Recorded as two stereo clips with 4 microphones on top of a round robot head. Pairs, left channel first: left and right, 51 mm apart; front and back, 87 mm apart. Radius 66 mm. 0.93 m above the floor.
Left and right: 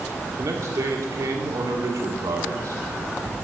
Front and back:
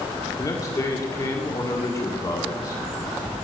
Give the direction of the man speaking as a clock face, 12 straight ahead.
2 o'clock.